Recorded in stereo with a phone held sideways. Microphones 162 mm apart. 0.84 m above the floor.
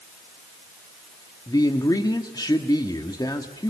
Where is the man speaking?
25° left (ahead or behind), 1.7 m.